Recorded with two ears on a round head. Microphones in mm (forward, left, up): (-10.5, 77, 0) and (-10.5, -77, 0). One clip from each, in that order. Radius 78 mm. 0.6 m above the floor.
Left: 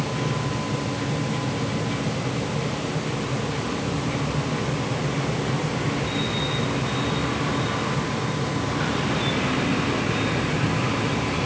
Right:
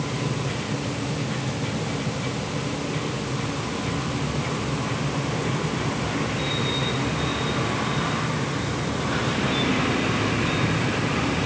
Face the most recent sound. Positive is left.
No sound to turn to.